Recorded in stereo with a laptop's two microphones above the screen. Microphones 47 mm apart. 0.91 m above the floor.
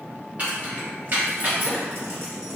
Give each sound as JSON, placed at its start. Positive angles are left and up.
{"t": 0.4, "sound": "keys jangling", "side_deg": -35, "distance_m": 1.7}